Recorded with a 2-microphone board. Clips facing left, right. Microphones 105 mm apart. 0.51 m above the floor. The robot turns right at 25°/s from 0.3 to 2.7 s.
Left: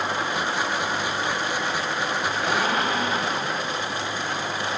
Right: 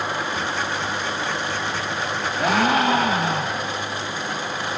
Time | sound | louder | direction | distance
2.4 | a gasp | right 7 dB | 70° right (ahead or behind) | 0.6 m